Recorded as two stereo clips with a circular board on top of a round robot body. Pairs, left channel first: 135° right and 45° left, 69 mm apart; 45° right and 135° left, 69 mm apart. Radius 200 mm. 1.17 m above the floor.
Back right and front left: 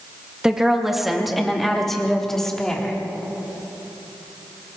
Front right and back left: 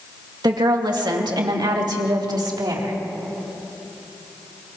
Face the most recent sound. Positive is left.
turn(degrees=145)